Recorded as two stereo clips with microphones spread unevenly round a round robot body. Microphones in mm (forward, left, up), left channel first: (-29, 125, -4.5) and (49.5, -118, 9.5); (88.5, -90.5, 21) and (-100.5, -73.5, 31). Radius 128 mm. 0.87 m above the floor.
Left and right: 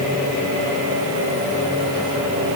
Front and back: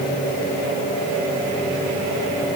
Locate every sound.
Only background noise.